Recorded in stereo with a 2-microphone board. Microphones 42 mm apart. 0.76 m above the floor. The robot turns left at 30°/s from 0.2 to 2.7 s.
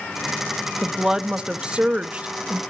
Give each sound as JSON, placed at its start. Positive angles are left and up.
{"t": 0.8, "sound": "a woman speaking", "azimuth_deg": -20, "distance_m": 0.6}